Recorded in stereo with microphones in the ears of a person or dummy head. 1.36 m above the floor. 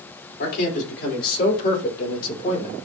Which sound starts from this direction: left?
A man speaking, at 0.4 s.